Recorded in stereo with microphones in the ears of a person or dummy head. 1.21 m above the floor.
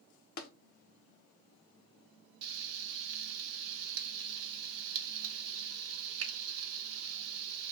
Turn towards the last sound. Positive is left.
turn(degrees=-80)